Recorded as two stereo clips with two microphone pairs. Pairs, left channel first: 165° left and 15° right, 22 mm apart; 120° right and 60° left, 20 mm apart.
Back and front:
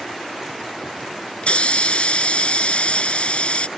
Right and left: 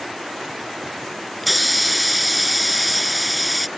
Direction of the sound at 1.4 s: 155° left.